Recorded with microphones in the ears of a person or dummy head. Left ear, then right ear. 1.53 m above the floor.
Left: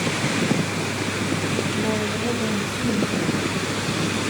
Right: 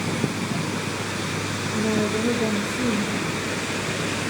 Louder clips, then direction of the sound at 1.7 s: Even; 20° left (ahead or behind).